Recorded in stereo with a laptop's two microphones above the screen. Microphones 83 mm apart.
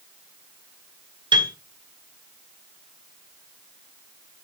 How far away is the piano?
About 2 m.